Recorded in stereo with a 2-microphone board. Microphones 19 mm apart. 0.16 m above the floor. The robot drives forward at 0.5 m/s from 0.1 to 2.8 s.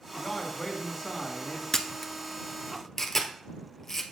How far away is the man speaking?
About 1.7 m.